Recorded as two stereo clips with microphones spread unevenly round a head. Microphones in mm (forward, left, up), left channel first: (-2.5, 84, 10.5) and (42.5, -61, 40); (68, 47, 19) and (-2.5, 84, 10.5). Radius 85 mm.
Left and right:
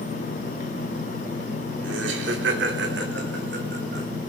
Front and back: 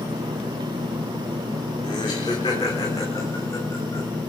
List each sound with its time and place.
1.8 s laughter: 85° right, 3.5 m; by 4.1 s 105° right, 5 m